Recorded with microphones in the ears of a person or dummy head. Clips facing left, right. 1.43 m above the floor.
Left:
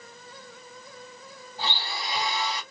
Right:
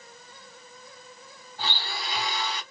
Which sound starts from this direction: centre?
A blender, at 1.6 s.